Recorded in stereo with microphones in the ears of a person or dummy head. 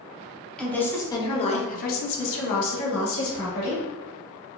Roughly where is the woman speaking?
Centre.